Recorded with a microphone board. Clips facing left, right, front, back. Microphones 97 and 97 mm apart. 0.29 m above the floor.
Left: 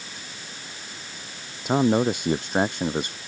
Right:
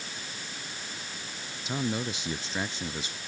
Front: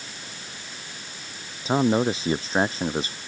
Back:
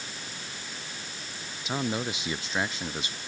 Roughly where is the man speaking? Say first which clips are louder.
Left 12 dB, front 10 dB; ahead left.